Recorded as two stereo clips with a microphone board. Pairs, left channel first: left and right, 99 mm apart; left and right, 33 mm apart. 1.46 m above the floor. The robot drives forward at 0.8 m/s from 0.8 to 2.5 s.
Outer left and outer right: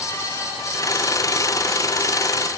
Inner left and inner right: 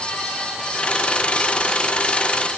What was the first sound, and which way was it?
Only background noise.